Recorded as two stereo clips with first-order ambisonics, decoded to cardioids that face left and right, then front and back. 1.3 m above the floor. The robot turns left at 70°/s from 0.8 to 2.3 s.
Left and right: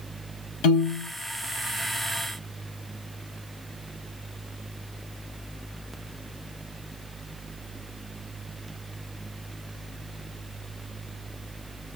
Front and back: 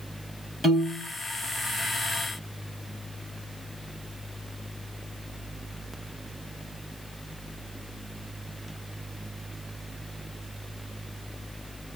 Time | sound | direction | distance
0.6 | a piano | 80° left | 1.6 m